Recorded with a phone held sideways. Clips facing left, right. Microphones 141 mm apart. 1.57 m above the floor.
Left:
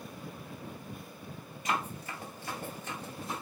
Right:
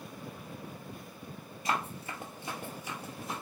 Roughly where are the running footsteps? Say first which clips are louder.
Even; right.